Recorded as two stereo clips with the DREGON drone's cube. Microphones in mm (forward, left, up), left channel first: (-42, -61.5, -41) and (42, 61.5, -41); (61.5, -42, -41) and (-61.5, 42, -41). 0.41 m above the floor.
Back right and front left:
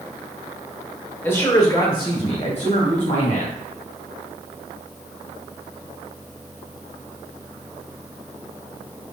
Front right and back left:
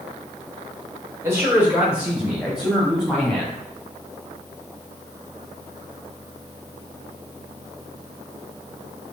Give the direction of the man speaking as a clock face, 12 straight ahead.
6 o'clock.